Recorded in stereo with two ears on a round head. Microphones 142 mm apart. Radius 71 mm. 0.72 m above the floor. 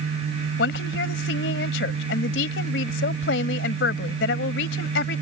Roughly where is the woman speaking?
Left.